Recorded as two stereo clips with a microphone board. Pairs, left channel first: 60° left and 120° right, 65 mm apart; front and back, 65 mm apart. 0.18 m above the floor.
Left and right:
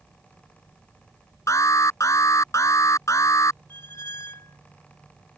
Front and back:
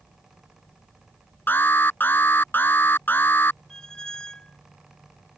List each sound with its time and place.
1.5 s an alarm: 50° left
3.7 s a squeak: 75° left